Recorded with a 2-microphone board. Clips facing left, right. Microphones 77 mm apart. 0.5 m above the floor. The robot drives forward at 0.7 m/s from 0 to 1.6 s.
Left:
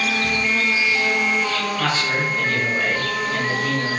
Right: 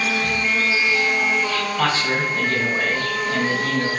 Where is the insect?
10° right (ahead or behind), 0.7 m; by 4.0 s 5° right (ahead or behind), 1.8 m.